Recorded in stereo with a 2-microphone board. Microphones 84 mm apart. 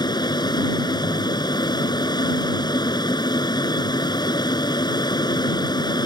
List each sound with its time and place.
0.0 s an aircraft: 55° left (ahead or behind)